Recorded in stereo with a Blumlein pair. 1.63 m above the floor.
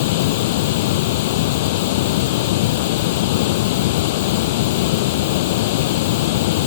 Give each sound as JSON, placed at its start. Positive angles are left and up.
{"t": 0.0, "sound": "running water", "azimuth_deg": 50}